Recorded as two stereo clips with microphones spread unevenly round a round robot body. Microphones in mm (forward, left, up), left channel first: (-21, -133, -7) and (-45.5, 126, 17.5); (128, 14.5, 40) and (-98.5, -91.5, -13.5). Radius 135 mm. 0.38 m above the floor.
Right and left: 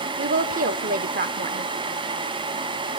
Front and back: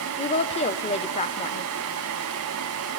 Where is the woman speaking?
90° left, 0.9 m.